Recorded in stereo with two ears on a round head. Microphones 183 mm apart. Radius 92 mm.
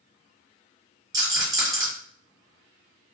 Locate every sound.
1.1 s a rattle: 15° right (ahead or behind), 1.5 m